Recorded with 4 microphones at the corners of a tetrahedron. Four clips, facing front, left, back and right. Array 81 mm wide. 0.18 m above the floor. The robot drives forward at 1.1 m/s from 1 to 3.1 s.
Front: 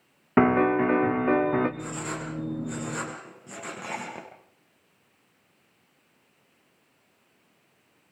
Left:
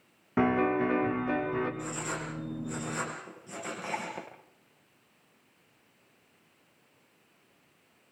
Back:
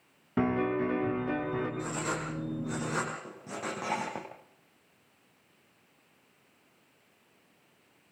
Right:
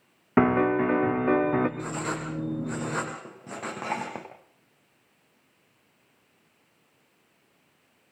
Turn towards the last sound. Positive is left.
turn(degrees=-105)